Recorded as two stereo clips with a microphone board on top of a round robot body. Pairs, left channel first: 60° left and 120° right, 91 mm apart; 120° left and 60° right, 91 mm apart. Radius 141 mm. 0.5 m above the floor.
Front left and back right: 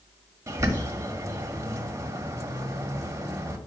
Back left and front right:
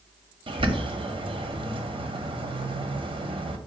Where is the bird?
60° right, 1.1 m.